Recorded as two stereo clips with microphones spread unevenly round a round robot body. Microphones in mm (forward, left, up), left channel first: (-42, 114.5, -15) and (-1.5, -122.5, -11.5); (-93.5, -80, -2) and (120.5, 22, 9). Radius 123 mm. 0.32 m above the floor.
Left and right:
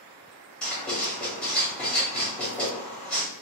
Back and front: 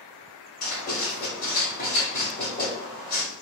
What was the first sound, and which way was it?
Writing, 175° right.